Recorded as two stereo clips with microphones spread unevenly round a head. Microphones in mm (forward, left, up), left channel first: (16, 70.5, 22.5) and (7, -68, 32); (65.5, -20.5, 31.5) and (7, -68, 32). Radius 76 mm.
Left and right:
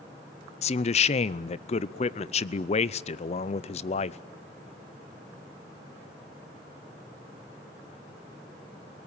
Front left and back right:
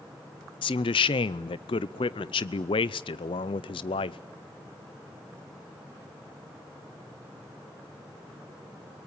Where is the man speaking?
40° left, 0.6 m.